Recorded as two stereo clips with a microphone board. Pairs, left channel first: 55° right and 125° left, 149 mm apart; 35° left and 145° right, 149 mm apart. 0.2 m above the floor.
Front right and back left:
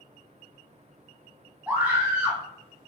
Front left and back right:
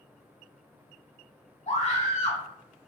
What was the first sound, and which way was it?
A scream, 50° left.